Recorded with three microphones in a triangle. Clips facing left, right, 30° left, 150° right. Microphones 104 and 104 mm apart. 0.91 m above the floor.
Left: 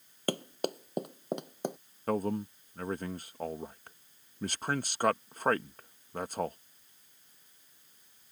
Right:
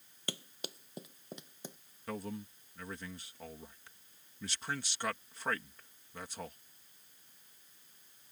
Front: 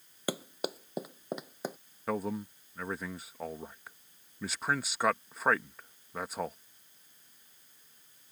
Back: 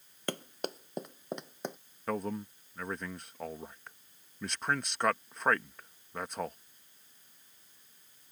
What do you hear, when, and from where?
0.3 s running footsteps: 110° left; by 1.8 s 115° left
2.1 s a man speaking: 115° left